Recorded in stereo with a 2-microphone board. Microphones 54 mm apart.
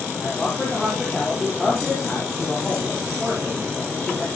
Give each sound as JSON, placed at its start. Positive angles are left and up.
{"t": 0.2, "sound": "a man speaking", "side_deg": 5, "distance_m": 5.0}